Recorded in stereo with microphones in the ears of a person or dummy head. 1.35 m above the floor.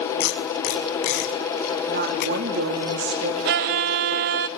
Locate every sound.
0.2 s tape being pulled: 60° left (ahead or behind), 5.5 m
1.9 s a woman speaking: 55° right (ahead or behind), 3 m
3.5 s a violin: 50° right (ahead or behind), 0.7 m